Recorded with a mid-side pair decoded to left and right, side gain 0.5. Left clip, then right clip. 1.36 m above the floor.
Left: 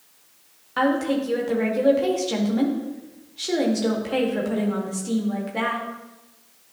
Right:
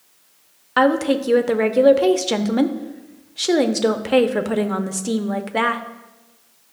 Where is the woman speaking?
55° right, 0.7 m.